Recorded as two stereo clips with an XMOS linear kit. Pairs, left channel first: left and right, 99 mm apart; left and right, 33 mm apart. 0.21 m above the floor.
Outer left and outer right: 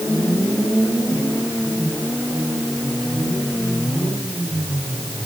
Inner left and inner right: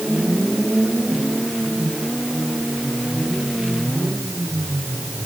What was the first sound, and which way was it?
Only background noise.